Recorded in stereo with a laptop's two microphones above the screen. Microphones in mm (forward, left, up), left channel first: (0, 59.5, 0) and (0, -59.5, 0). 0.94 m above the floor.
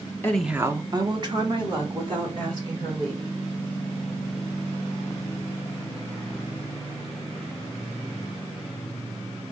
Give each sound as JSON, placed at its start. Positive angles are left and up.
{"t": 0.2, "sound": "a woman speaking", "side_deg": 15, "distance_m": 0.5}